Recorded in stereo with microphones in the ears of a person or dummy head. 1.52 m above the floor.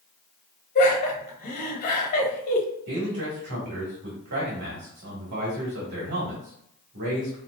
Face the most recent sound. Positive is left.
turn(degrees=-55)  # may be behind; listen again after turning